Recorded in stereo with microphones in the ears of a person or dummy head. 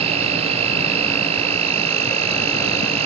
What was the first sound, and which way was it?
An insect, 40° right (ahead or behind).